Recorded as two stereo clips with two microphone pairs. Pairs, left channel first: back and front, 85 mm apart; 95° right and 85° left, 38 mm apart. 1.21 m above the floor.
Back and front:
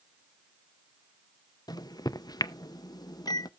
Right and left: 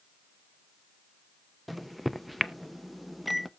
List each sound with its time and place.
1.7 s a microwave: 170° left, 0.5 m